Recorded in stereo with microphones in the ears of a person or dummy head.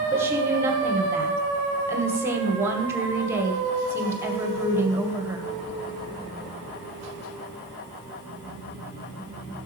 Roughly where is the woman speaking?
Centre.